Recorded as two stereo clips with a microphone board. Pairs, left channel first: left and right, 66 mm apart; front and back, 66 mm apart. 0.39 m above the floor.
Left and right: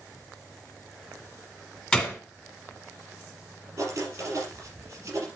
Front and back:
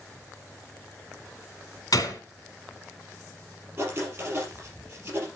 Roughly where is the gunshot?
Ahead.